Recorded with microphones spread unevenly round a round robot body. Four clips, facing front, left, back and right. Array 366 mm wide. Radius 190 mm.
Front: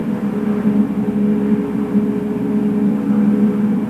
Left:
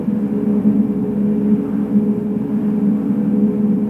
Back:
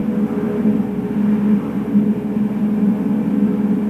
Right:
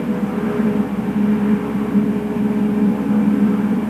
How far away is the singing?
I don't hear singing.